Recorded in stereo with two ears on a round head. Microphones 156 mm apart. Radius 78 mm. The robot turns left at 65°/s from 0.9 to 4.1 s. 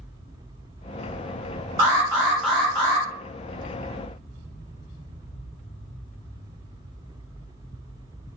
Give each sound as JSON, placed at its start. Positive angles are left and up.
{"t": 1.8, "sound": "an alarm", "side_deg": -25, "distance_m": 1.9}